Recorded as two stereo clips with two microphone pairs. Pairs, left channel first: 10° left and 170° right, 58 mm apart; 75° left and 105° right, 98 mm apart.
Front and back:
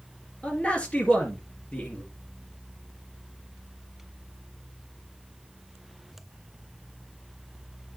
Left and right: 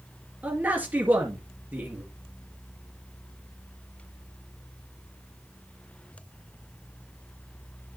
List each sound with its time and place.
0.4 s a man speaking: 45° right, 2 m